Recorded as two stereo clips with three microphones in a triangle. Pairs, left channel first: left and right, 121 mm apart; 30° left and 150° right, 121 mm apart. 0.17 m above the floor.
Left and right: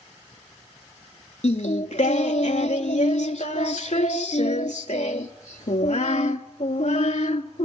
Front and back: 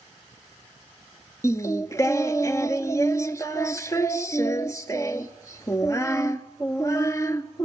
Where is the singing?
90° left, 0.5 m.